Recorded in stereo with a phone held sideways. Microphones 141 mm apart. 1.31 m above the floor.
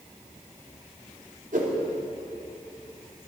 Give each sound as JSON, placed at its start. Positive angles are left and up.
{"t": 1.5, "sound": "a whoosh", "side_deg": -70, "distance_m": 2.5}